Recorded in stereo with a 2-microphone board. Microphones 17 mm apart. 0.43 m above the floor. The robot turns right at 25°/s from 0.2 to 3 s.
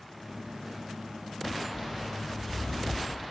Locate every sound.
1.7 s footsteps: 25° right (ahead or behind), 1.6 m; by 3.2 s 55° left (ahead or behind), 0.8 m